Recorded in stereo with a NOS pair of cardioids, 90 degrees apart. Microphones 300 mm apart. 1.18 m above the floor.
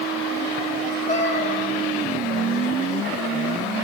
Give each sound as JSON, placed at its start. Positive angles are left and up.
{"t": 1.1, "sound": "a cat meowing", "azimuth_deg": 25, "distance_m": 2.5}